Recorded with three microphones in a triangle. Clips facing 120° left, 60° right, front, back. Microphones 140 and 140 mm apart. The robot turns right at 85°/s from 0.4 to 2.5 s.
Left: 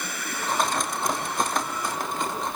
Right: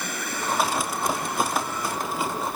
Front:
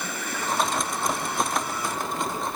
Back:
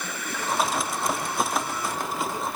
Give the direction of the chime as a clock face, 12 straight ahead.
I don't hear a chime.